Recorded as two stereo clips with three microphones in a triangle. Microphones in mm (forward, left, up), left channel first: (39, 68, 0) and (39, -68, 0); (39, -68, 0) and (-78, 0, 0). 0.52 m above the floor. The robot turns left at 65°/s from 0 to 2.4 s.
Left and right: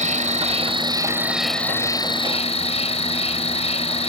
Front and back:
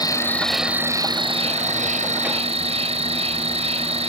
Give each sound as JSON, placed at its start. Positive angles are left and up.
{"t": 0.0, "sound": "an insect", "azimuth_deg": -85}